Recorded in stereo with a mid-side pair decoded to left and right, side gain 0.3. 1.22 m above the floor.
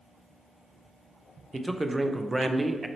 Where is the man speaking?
20° right, 0.6 m.